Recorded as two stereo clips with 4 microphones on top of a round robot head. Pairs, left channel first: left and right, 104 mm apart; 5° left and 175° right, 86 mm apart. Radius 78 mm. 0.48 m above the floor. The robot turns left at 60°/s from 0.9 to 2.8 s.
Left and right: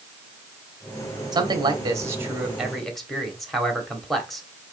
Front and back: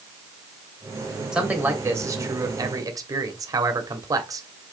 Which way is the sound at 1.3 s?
95° right.